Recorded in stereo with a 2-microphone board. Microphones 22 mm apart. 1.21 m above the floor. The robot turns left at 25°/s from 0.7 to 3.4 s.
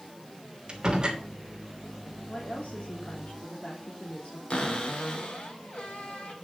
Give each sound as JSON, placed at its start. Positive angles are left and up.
{"t": 0.7, "sound": "a door slam", "side_deg": -40, "distance_m": 3.0}
{"t": 2.3, "sound": "a woman speaking", "side_deg": 65, "distance_m": 3.5}
{"t": 4.5, "sound": "a cupboard door", "side_deg": 55, "distance_m": 2.5}